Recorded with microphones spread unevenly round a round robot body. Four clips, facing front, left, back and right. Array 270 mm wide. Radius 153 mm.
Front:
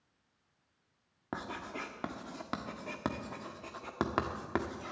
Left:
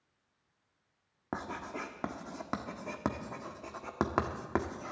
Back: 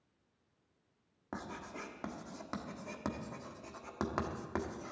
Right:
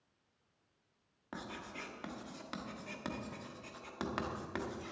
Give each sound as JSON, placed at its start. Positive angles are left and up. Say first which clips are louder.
{"t": 1.3, "sound": "writing", "louder": "left 7 dB, front 4 dB", "azimuth_deg": 55, "distance_m": 1.5}